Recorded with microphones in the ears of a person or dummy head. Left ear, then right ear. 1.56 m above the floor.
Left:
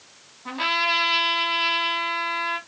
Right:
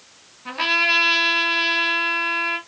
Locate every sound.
0.5 s a trumpet: 20° right (ahead or behind), 1.7 m